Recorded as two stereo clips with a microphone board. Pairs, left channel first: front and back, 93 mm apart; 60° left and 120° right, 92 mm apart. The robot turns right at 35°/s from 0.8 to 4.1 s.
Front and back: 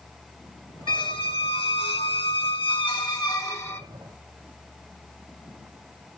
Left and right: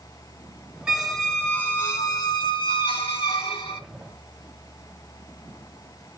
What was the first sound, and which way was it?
A squeak, 35° right.